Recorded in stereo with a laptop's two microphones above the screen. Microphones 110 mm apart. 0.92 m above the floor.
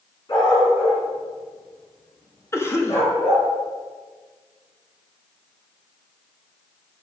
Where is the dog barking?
40° left (ahead or behind), 3 m; by 3.5 s 60° left (ahead or behind), 5 m.